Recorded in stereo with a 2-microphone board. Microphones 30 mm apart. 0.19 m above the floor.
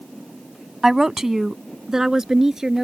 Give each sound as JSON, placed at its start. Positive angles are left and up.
{"t": 0.8, "sound": "a woman speaking", "side_deg": -10}